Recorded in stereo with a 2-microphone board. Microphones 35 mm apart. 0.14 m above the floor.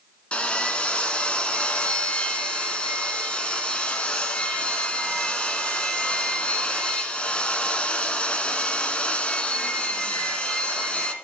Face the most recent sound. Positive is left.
turn(degrees=30)  # may be behind; listen again after turning